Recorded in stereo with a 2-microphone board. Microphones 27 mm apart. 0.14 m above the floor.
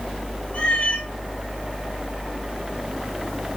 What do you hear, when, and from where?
0.5 s a cat meowing: 45° left (ahead or behind), 1.1 m